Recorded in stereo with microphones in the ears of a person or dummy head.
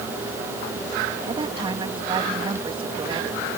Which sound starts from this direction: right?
A woman speaking, at 1.3 s.